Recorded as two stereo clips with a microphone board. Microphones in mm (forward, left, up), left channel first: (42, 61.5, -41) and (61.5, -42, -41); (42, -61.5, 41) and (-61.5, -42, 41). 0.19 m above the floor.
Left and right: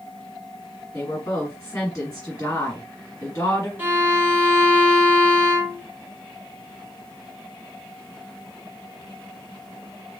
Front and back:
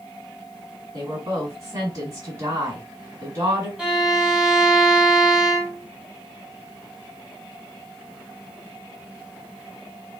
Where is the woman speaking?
135° left, 1.7 m.